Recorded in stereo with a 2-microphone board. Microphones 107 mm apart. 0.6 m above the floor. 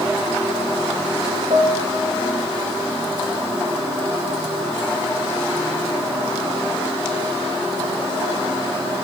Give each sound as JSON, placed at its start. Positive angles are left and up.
{"t": 1.5, "sound": "a piano", "side_deg": -75, "distance_m": 1.9}